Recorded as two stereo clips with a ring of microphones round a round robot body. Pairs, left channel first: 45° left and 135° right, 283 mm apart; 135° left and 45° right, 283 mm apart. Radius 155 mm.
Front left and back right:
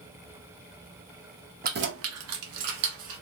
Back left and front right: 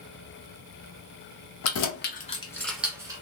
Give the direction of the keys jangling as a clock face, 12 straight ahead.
6 o'clock.